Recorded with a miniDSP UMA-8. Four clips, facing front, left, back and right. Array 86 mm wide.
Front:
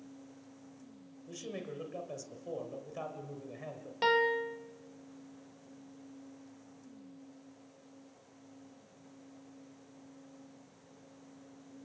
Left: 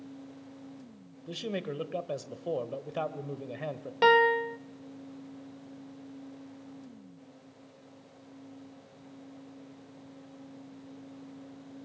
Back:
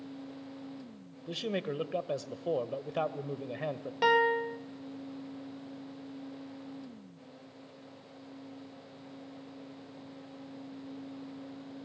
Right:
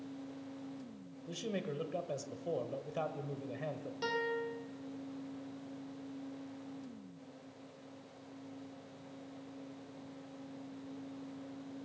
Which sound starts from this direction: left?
A piano, at 4.0 s.